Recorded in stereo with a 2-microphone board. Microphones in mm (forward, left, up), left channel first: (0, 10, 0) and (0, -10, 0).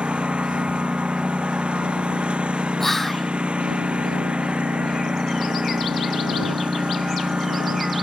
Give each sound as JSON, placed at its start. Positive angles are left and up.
{"t": 0.0, "sound": "a lawn mower", "side_deg": -85}
{"t": 2.8, "sound": "whispering", "side_deg": 15}